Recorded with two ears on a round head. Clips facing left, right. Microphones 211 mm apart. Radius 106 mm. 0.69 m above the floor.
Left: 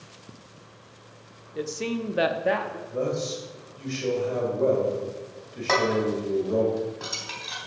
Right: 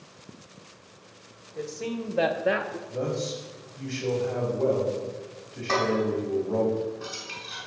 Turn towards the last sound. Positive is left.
turn(degrees=75)  # may be behind; listen again after turning